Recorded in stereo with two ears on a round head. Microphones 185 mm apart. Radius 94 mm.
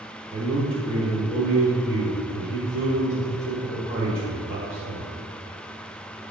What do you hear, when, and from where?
0.3 s a man speaking: 40° right (ahead or behind), 1.7 m